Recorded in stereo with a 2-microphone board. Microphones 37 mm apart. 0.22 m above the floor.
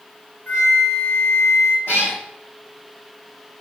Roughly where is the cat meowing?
Left.